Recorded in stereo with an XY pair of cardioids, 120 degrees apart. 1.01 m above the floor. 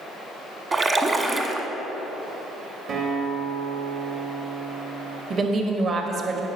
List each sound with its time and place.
0.7 s a splash: 30° right, 1.3 m
2.9 s a guitar: 55° right, 1.9 m
5.3 s a woman speaking: 45° right, 1.4 m